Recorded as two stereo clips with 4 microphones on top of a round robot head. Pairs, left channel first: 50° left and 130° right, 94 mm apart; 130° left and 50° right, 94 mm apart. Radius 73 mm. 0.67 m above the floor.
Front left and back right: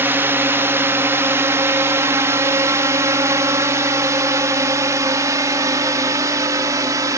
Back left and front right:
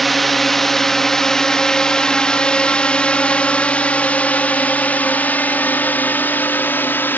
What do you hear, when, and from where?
0.0 s a drone: 145° right; by 7.2 s 170° right